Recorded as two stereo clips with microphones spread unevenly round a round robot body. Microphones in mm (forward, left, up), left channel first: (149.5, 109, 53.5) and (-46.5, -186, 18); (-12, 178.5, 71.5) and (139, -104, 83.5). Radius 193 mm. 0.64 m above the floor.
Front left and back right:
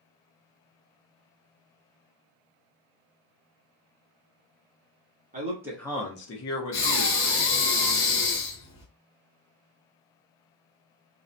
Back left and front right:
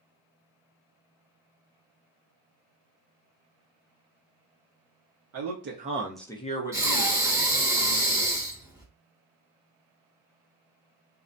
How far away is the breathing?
About 1.2 m.